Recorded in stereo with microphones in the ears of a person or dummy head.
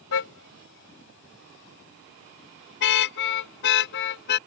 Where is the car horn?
75° left (ahead or behind); by 4.4 s 65° left (ahead or behind).